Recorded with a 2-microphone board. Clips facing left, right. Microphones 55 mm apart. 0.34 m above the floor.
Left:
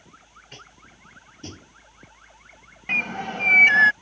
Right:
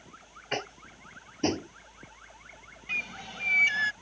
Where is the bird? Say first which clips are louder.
Left 9 dB; 50° left (ahead or behind).